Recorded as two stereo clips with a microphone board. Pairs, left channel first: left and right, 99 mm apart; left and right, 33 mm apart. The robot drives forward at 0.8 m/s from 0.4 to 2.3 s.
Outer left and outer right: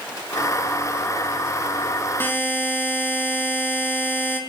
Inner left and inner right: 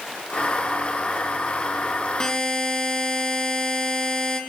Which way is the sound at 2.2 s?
25° left (ahead or behind).